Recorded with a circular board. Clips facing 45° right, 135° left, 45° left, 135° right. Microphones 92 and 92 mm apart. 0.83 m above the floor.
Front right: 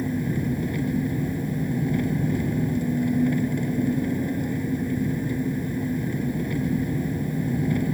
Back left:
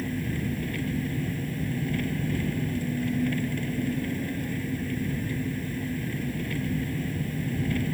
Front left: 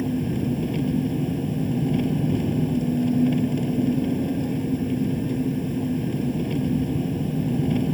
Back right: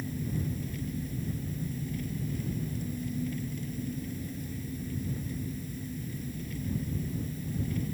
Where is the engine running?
25° left.